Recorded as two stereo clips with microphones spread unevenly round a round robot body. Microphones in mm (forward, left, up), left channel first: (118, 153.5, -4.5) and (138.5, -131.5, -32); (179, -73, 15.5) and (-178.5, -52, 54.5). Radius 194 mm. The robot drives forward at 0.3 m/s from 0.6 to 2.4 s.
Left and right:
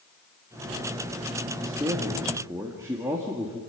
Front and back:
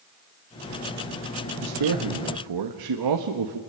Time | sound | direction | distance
1.6 | a man speaking | 165° right | 1.6 m